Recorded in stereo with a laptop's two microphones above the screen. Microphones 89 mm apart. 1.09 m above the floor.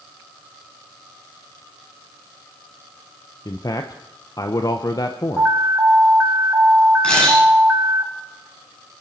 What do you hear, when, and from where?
3.5 s a man speaking: 45° left (ahead or behind), 0.9 m
5.4 s an alarm: 20° right (ahead or behind), 2.5 m
7.0 s a camera shutter: 15° left (ahead or behind), 9 m